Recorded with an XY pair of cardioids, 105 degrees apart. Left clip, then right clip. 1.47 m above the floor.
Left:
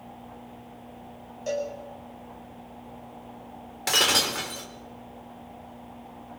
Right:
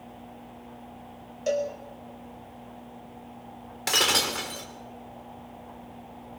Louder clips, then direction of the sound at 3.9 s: Left 1 dB; 5° right.